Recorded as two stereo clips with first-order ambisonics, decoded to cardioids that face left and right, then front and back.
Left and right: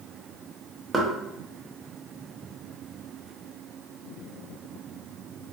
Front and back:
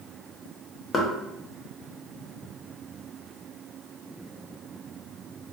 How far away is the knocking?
About 0.5 m.